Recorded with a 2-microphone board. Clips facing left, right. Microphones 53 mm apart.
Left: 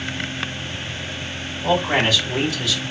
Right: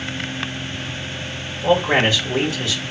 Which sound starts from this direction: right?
A man speaking, at 1.6 s.